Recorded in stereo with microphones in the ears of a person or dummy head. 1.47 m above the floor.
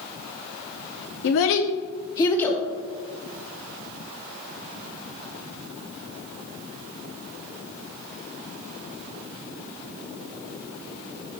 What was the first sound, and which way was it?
A child speaking, 65° left (ahead or behind).